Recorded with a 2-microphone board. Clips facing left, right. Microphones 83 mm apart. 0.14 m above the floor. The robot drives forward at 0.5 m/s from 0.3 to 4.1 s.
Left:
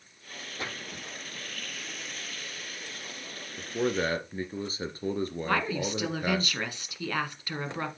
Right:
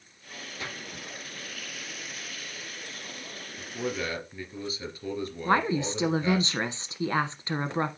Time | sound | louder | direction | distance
0.6 | a splash | left 2 dB | 30° left (ahead or behind) | 5.5 m
3.6 | a man speaking | left 4 dB | 35° left (ahead or behind) | 2 m
5.5 | a woman speaking | right 6 dB | 25° right (ahead or behind) | 1.2 m